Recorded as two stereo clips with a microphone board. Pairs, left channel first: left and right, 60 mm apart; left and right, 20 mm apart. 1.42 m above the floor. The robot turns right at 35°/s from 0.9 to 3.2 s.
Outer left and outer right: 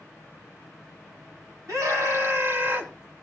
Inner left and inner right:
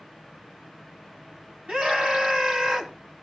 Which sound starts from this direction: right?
A scream, at 1.7 s.